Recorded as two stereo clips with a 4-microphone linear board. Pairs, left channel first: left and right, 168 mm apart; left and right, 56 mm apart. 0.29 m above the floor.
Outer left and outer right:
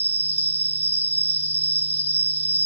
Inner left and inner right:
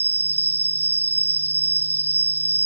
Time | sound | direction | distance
0.0 | an insect | 40° left (ahead or behind) | 0.7 m